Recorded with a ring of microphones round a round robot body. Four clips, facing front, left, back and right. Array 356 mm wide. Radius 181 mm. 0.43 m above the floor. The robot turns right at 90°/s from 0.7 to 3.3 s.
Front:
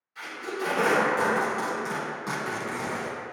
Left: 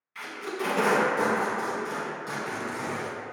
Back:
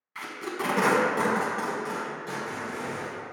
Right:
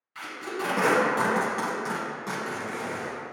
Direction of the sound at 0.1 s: 170° right.